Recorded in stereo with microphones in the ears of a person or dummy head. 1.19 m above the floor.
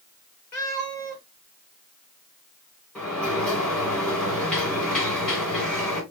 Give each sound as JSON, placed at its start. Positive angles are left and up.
{"t": 0.5, "sound": "a cat meowing", "side_deg": 20, "distance_m": 3.5}
{"t": 3.0, "sound": "a sliding door", "side_deg": 10, "distance_m": 3.0}